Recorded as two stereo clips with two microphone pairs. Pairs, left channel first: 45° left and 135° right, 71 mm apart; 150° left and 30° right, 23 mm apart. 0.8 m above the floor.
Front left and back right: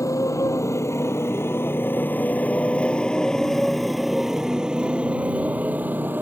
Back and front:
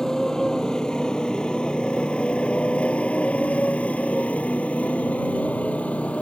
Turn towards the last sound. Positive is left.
turn(degrees=165)